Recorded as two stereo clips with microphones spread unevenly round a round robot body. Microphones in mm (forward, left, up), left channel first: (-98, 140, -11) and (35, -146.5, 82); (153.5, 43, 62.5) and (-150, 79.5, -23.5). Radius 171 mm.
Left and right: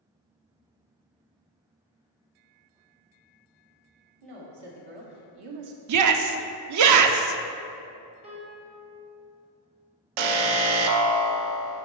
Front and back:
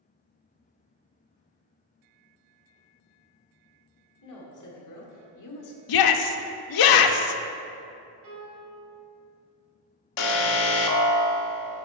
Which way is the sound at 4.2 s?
60° right.